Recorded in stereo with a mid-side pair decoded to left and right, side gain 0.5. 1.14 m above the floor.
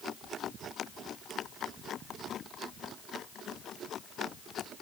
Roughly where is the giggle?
No giggle in this recording.